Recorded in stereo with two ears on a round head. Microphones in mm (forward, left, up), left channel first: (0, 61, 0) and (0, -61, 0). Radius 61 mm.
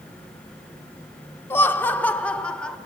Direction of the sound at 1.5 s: 15° left (ahead or behind).